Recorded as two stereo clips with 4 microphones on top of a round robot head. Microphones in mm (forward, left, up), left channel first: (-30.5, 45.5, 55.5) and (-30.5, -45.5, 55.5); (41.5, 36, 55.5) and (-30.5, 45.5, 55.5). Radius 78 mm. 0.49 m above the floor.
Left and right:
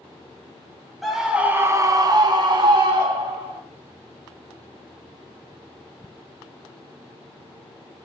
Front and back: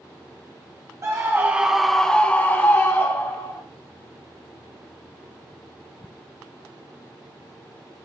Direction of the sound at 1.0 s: Straight behind.